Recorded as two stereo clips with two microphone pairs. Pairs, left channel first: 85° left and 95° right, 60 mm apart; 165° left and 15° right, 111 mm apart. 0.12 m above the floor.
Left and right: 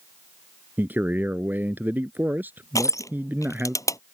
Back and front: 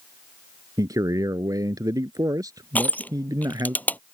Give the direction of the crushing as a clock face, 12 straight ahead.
9 o'clock.